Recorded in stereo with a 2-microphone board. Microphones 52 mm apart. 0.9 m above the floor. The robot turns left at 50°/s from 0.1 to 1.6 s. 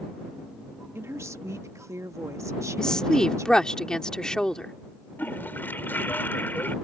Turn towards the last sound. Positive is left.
turn(degrees=40)  # may be behind; listen again after turning